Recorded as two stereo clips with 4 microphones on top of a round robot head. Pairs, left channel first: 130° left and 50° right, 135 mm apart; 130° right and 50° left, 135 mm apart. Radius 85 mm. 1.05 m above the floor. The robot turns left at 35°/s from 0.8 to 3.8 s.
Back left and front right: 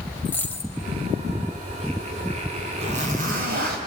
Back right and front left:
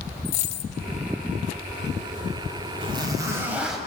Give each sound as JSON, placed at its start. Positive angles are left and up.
{"t": 0.2, "sound": "a dropped coin", "azimuth_deg": -155, "distance_m": 0.9}
{"t": 2.8, "sound": "a zipper", "azimuth_deg": -5, "distance_m": 4.0}